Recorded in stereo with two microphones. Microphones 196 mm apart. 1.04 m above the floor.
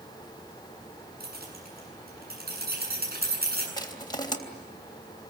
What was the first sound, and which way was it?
Keys jangling, 55° right (ahead or behind).